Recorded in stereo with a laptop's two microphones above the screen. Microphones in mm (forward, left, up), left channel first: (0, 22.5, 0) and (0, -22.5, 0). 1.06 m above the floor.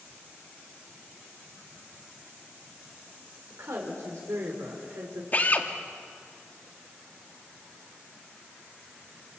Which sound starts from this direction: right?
A woman speaking, at 3.5 s.